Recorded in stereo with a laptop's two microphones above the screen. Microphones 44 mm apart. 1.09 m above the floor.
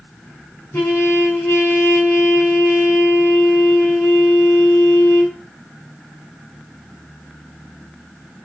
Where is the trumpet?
45° left (ahead or behind), 4.5 m.